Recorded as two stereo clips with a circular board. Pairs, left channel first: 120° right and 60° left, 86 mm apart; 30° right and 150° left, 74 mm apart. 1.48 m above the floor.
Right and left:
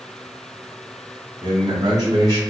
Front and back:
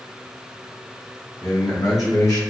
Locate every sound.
1.4 s a man speaking: 15° left, 1.1 m